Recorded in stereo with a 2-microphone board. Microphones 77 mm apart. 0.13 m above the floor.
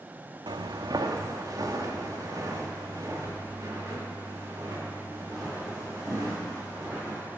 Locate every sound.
0.5 s footsteps: 80° right, 0.6 m; by 7.2 s 40° right (ahead or behind), 5.5 m